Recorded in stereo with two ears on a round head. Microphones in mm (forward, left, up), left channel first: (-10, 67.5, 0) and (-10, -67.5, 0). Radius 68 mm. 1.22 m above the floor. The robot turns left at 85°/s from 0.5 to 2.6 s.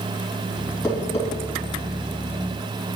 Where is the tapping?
15° left (ahead or behind), 3 m; by 1.3 s 50° left (ahead or behind), 3 m.